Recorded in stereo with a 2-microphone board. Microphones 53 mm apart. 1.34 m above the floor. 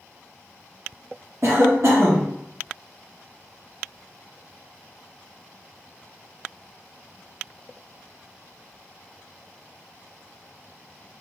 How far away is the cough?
About 0.6 m.